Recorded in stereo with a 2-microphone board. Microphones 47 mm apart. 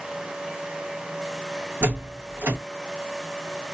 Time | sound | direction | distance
1.8 | a door slam | 45° right (ahead or behind) | 1.8 m